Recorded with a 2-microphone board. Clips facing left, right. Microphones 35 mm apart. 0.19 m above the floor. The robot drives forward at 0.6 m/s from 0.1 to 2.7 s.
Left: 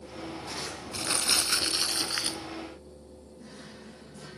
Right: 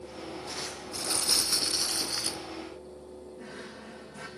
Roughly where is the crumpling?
Left.